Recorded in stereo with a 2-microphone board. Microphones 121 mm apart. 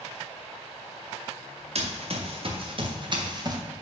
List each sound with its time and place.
1.8 s running footsteps: 60° right (ahead or behind), 2 m; by 3.6 s 35° right (ahead or behind), 1.5 m